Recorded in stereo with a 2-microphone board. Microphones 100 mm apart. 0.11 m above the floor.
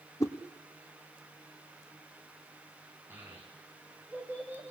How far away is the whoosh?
About 1.7 m.